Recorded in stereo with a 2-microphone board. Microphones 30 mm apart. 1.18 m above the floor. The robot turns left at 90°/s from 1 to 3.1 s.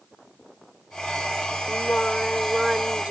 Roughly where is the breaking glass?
No breaking glass in this recording.